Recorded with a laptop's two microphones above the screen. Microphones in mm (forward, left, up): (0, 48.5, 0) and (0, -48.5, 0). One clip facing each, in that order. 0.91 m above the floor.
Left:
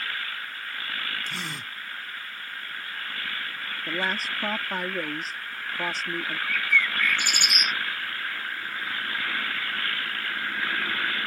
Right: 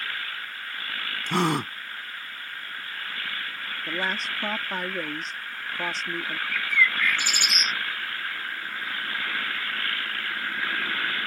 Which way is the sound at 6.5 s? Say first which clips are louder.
Right 2 dB; 55° left (ahead or behind).